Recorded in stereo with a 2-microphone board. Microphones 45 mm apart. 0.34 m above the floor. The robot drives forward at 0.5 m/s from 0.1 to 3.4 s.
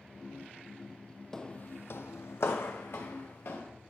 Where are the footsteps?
10° left (ahead or behind), 0.6 m; by 3.6 s 60° left (ahead or behind), 2.5 m.